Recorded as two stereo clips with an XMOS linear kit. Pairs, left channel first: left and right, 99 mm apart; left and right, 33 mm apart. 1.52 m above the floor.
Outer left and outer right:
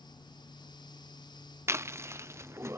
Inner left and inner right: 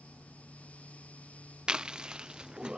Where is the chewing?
25° right (ahead or behind).